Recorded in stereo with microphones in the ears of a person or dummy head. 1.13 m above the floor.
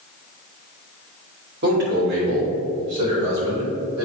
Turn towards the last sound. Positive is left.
turn(degrees=-85)